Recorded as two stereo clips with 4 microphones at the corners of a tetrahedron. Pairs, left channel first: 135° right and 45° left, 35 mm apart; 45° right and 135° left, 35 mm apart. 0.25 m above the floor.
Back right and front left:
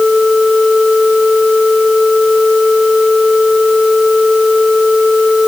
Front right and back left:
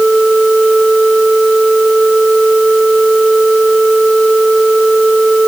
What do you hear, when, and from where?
Only background noise.